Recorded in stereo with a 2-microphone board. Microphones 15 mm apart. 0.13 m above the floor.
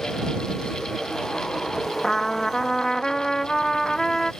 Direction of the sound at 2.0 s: 30° left (ahead or behind).